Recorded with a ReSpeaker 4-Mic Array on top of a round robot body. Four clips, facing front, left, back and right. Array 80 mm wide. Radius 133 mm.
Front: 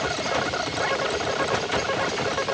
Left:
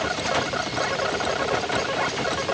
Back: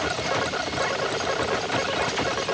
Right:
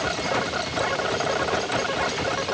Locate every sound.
Only background noise.